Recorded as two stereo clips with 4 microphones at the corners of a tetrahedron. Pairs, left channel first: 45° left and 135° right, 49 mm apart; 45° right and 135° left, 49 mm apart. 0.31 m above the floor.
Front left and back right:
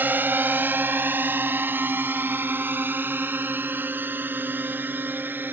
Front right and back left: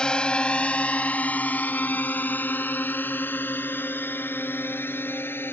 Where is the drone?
110° right; by 5.5 s 85° right.